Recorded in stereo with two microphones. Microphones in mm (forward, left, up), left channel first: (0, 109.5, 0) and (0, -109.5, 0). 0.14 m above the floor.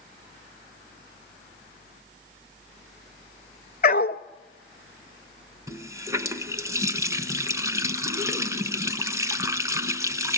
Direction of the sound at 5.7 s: 15° right (ahead or behind).